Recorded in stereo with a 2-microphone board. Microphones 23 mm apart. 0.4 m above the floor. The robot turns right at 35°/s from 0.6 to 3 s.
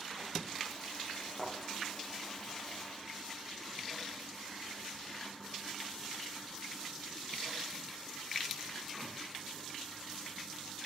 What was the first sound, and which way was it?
A thud, 25° right (ahead or behind).